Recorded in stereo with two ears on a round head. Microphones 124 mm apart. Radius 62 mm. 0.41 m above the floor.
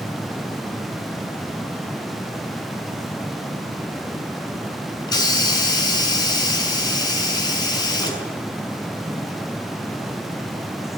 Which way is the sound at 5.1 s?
30° left (ahead or behind).